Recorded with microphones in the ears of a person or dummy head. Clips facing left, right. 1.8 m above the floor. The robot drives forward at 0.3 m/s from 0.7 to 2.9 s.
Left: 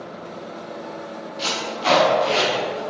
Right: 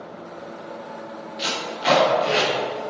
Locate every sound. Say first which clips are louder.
1.4 s tape being pulled: left 1 dB; 20° right (ahead or behind), 1.3 m; by 2.8 s 15° right (ahead or behind), 1.6 m